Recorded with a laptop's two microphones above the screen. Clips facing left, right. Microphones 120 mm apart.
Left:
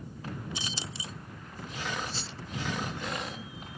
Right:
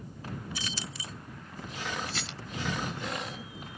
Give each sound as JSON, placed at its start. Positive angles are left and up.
{"t": 0.6, "sound": "keys jangling", "side_deg": 25}
{"t": 2.1, "sound": "a rattle", "side_deg": -85}